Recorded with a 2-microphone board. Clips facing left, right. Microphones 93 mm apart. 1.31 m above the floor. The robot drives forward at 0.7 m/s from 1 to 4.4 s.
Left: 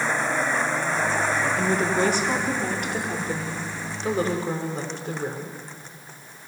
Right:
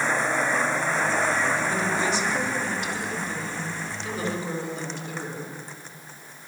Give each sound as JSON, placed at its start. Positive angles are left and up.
{"t": 1.6, "sound": "a woman speaking", "side_deg": 60, "distance_m": 3.5}